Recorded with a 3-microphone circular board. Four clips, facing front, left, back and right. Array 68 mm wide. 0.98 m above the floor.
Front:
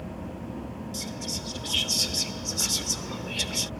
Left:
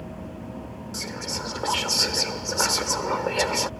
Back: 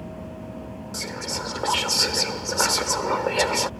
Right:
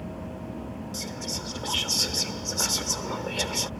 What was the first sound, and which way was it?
Whispering, 150° left.